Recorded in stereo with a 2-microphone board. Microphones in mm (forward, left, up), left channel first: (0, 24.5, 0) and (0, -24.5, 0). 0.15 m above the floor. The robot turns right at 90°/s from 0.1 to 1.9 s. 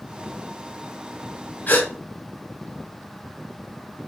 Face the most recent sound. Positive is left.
turn(degrees=45)  # may be behind; listen again after turning